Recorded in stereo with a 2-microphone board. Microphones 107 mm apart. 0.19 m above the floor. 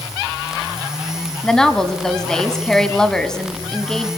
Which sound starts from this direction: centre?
A woman speaking, at 1.4 s.